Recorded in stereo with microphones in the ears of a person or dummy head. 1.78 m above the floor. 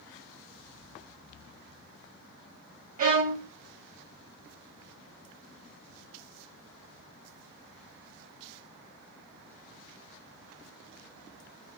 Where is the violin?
40° right (ahead or behind), 0.9 m.